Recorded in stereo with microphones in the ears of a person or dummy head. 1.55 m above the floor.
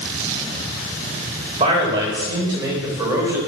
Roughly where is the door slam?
I don't hear a door slam.